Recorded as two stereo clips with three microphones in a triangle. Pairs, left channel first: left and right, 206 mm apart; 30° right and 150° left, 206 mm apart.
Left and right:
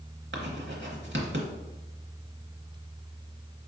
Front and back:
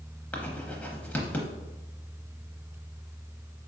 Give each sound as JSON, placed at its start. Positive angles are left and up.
{"t": 0.3, "sound": "writing", "azimuth_deg": -110, "distance_m": 0.8}